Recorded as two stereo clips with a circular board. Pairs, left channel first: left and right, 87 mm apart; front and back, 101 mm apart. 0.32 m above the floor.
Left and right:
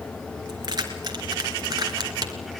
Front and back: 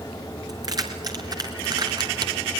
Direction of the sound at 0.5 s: 130° right.